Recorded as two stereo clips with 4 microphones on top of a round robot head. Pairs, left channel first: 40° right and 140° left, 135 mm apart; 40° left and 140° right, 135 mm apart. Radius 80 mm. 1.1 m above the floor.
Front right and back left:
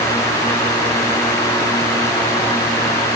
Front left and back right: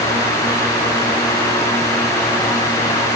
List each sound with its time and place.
Only background noise.